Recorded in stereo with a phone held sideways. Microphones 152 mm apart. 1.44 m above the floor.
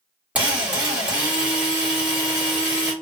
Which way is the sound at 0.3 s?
10° right (ahead or behind).